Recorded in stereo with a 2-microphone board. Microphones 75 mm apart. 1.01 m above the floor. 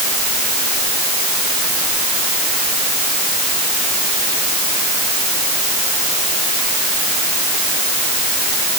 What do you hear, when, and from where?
Only background noise.